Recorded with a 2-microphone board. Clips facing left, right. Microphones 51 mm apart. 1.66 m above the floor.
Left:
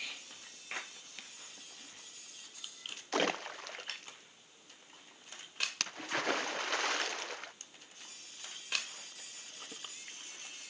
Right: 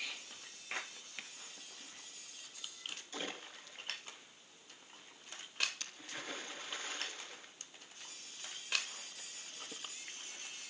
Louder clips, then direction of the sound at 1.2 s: Right 3 dB; 15° right (ahead or behind).